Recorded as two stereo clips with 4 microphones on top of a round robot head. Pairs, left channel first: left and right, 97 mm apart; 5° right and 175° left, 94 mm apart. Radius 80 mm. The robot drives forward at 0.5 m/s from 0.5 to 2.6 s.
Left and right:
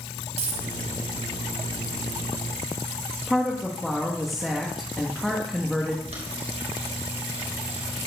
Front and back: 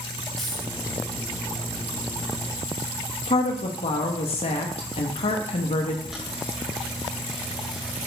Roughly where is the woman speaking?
Ahead.